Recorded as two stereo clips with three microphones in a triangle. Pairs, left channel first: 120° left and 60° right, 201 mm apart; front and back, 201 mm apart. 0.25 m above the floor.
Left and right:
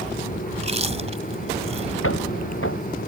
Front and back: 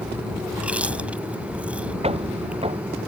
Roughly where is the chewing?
Right.